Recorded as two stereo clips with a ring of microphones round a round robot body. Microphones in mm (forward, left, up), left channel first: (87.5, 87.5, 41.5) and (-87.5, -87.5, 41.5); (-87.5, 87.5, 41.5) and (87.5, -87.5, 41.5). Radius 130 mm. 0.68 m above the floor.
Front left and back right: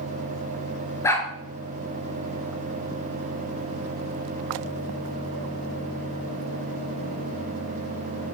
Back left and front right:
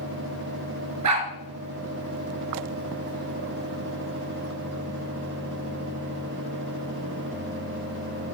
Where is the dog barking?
35° right, 4 m.